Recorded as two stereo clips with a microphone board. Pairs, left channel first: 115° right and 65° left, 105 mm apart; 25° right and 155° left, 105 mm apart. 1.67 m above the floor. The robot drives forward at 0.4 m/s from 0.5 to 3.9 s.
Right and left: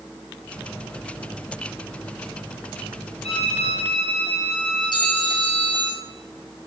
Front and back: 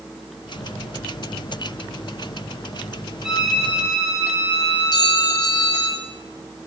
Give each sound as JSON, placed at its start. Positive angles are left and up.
{"t": 3.2, "sound": "a violin", "azimuth_deg": -120, "distance_m": 9.0}
{"t": 4.9, "sound": "a clink", "azimuth_deg": -70, "distance_m": 7.0}